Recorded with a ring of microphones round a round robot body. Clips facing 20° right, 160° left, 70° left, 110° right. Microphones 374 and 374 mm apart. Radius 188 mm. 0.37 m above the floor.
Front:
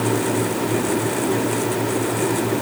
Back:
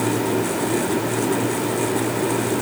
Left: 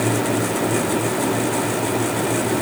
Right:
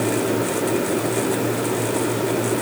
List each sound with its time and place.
Only background noise.